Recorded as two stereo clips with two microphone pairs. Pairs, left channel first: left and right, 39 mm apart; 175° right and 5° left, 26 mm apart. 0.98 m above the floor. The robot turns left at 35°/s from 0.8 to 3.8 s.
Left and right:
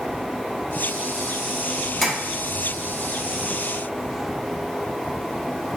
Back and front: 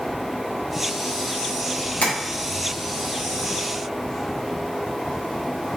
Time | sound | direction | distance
2.0 | tapping | 175° left | 1.1 m